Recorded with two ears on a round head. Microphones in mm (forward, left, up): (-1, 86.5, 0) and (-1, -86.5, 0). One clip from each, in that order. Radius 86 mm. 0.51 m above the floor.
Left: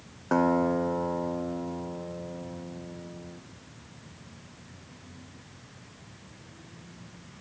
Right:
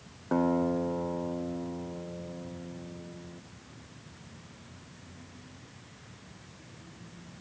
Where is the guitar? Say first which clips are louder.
Left 4 dB; 45° left (ahead or behind).